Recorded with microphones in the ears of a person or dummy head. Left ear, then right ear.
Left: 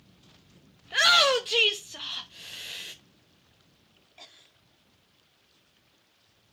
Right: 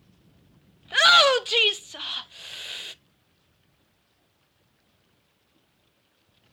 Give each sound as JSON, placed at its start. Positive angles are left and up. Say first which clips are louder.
{"t": 0.8, "sound": "a shout", "louder": "right 4 dB", "side_deg": -25, "distance_m": 0.5}